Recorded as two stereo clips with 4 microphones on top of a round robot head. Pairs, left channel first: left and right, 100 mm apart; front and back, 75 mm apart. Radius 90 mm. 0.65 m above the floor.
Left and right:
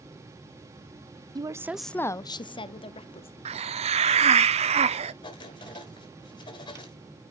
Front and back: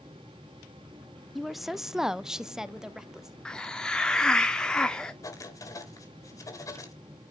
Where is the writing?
40° left, 3 m.